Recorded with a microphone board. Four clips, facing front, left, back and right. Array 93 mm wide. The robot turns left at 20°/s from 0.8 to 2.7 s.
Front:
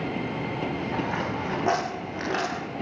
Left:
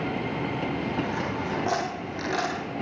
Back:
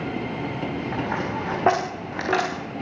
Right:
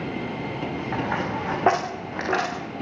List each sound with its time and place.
0.9 s a dropped coin: 120° right, 9.5 m; by 2.5 s 150° right, 9.5 m